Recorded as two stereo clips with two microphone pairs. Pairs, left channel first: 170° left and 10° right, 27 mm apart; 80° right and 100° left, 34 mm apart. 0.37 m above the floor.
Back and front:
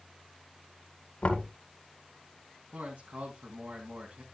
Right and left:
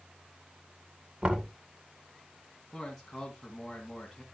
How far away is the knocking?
About 2 m.